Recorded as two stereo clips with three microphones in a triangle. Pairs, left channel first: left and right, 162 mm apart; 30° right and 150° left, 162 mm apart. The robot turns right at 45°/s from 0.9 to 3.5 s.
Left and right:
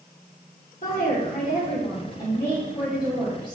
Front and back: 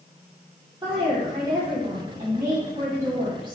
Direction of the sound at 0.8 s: 95° left.